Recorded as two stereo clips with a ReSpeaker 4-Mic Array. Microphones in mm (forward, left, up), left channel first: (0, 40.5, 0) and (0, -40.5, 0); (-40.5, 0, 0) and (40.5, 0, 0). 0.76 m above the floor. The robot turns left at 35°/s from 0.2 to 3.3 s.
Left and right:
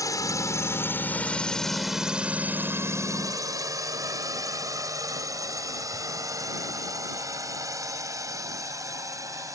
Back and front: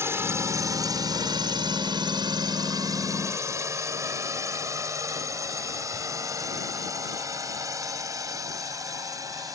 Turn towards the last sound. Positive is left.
turn(degrees=-45)